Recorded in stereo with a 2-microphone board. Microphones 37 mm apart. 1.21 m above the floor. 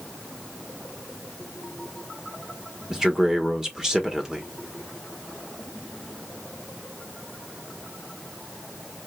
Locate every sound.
2.9 s a man speaking: 15° right (ahead or behind), 1.2 m